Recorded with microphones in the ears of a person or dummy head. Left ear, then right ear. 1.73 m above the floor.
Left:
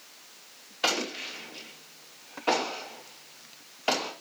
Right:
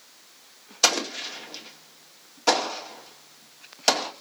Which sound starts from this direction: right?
An explosion, at 0.8 s.